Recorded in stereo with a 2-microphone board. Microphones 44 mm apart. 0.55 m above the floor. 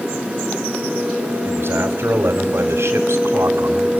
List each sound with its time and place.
1.4 s a man speaking: 50° right (ahead or behind), 2.5 m; by 3.9 s 70° right (ahead or behind), 2 m